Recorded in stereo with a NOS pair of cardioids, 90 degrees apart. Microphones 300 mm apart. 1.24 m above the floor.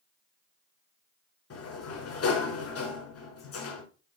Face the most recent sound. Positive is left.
turn(degrees=55)